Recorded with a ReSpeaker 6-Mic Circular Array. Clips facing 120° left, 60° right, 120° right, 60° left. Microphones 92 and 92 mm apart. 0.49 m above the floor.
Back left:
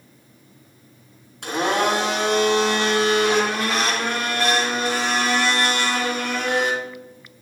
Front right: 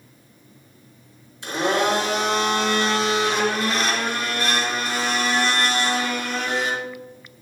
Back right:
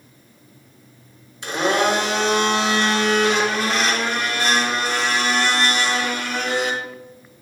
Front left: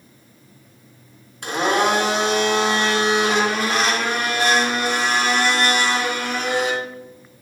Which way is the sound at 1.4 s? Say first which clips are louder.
Even, even; 95° left.